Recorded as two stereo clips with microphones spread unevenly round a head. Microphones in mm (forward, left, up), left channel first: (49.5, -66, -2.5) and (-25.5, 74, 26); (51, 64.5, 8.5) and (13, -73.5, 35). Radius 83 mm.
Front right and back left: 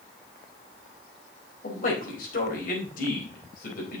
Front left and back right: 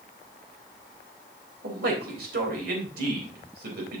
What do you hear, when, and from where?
1.6 s a man speaking: 100° right, 4 m